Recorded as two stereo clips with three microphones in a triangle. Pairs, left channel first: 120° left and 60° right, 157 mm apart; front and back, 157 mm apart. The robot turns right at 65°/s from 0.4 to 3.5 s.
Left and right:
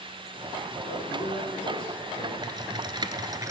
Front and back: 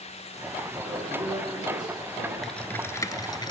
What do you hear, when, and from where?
0.8 s a man speaking: 80° left, 7.5 m; by 2.3 s straight behind, 7.5 m
2.4 s typing on a keyboard: 85° right, 0.7 m; by 3.5 s 15° right, 0.7 m